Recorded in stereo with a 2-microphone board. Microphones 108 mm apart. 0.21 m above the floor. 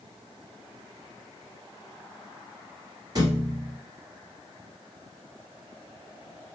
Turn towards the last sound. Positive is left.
turn(degrees=-40)  # may be behind; listen again after turning